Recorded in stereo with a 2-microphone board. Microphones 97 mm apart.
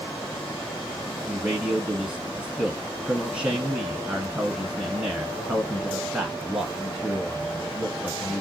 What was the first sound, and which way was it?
A man speaking, 10° right (ahead or behind).